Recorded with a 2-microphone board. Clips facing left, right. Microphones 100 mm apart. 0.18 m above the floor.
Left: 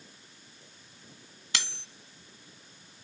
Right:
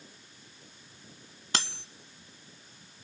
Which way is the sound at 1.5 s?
35° right (ahead or behind).